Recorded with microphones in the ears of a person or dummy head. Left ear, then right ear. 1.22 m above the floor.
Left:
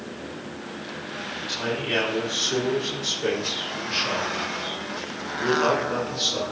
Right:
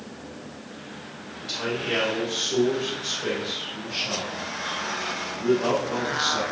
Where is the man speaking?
15° right (ahead or behind), 3 m; by 6.4 s 45° left (ahead or behind), 5 m.